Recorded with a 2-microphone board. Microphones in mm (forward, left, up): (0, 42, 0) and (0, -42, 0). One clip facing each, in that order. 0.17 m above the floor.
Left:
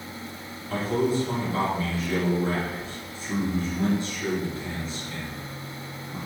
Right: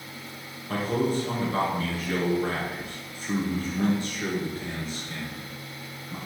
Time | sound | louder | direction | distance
0.7 | a man speaking | left 1 dB | 55° right (ahead or behind) | 2.5 m